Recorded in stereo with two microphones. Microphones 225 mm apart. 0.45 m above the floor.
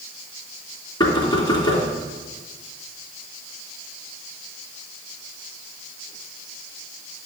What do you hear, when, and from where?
1.0 s knocking: 20° left (ahead or behind), 3 m